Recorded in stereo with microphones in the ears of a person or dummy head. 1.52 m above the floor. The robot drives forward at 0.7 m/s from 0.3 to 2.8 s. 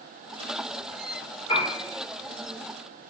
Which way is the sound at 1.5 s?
30° left (ahead or behind).